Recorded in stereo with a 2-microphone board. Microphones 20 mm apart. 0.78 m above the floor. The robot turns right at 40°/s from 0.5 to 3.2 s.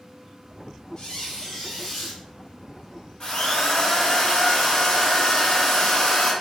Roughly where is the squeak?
Behind left.